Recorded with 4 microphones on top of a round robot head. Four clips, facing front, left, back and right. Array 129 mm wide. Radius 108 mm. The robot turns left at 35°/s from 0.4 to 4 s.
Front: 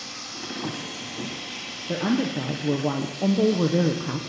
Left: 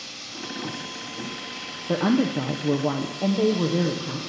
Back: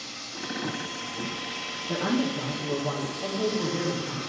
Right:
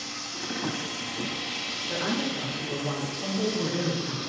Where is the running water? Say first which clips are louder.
Right 1 dB, front 1 dB; 35° right, 1.0 m; by 4.3 s 160° right, 1.0 m.